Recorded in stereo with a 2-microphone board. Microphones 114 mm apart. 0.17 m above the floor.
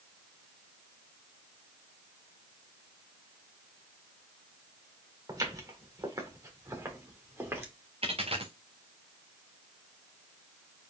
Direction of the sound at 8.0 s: 60° right (ahead or behind).